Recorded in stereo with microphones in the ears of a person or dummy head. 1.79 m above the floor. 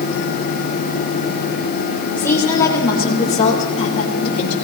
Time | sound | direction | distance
2.2 | a woman speaking | 10° left (ahead or behind) | 2.5 m